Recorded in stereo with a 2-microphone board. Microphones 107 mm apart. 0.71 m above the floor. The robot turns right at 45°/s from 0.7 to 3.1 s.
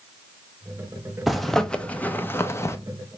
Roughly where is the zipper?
Centre.